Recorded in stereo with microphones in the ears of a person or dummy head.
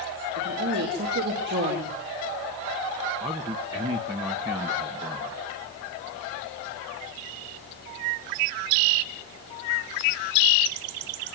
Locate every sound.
0.4 s a woman speaking: 65° right (ahead or behind), 4.5 m
3.2 s a man speaking: 25° right (ahead or behind), 1.6 m